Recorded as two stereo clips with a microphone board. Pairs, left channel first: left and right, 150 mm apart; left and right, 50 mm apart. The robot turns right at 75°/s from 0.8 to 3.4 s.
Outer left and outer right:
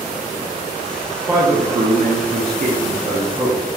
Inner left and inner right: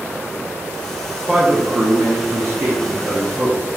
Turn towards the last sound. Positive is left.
turn(degrees=-10)